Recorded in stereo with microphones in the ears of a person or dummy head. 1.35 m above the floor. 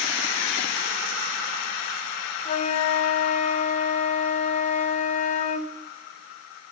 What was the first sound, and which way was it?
A flute, 40° left (ahead or behind).